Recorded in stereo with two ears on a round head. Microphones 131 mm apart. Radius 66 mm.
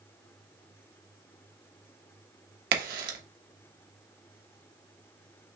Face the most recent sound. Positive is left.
turn(degrees=-70)  # may be behind; listen again after turning